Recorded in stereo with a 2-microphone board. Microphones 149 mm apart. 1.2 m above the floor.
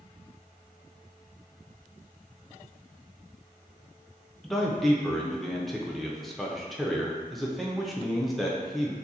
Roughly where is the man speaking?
Centre.